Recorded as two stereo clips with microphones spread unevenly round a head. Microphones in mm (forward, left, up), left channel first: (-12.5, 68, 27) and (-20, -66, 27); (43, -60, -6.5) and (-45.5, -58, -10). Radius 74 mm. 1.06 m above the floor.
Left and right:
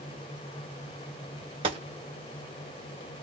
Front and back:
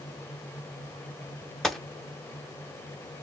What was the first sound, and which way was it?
A gunshot, 85° right.